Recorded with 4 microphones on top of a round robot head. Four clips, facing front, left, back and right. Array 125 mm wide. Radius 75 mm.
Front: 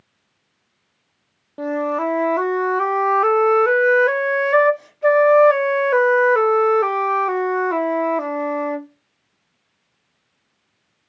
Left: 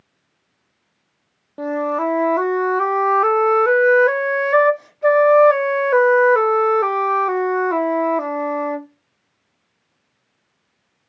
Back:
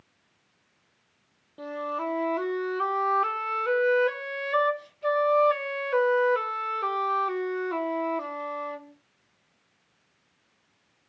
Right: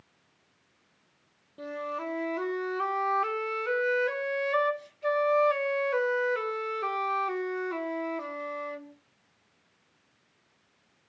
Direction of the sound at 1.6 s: 50° left.